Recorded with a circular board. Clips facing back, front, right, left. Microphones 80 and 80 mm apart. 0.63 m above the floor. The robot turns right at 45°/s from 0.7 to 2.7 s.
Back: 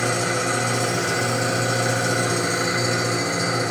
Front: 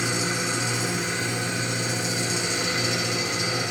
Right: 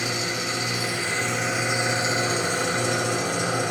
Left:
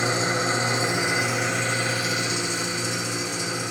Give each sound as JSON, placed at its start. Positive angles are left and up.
{"t": 0.0, "sound": "an engine running", "azimuth_deg": 145, "distance_m": 2.0}